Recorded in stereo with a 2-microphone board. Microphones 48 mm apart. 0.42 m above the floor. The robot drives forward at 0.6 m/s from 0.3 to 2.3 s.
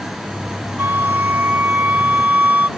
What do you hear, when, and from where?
0.8 s a flute: 55° right (ahead or behind); by 2.7 s 35° right (ahead or behind)